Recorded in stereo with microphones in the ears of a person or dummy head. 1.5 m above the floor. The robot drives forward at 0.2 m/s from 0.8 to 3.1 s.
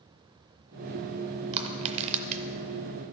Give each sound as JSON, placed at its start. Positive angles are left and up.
{"t": 1.5, "sound": "crushing", "side_deg": -30, "distance_m": 0.6}